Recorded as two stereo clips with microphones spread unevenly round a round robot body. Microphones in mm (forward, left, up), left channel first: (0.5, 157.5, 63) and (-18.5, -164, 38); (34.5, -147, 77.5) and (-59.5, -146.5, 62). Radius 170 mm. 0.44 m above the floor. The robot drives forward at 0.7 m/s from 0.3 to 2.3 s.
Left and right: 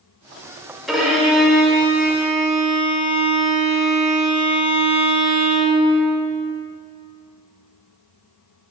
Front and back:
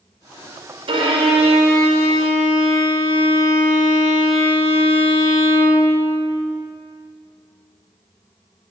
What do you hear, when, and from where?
0.9 s a violin: straight behind, 1.0 m